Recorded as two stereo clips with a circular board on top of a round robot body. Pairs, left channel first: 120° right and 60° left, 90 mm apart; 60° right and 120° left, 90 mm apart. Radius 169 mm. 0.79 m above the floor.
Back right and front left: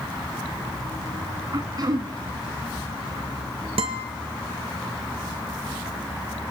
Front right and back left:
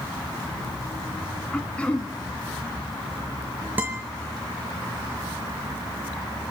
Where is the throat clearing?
15° left, 1.5 m.